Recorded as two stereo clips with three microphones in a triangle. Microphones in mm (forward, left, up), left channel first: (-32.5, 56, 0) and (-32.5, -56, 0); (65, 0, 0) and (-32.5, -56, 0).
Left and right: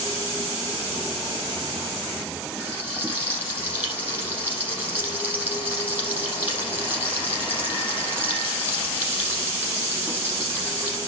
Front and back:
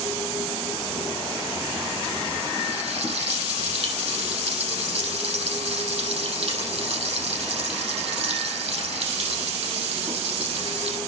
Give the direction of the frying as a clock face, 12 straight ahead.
5 o'clock.